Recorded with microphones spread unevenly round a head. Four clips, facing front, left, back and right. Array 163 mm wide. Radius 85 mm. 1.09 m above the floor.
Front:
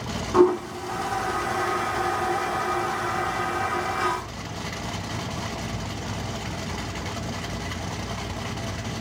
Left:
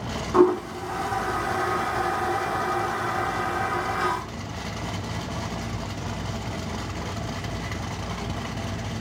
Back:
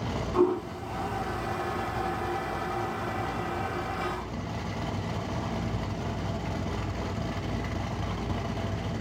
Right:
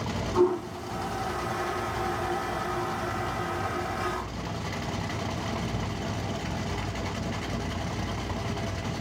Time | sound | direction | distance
0.3 | a toilet flushing | 50° left | 1.1 m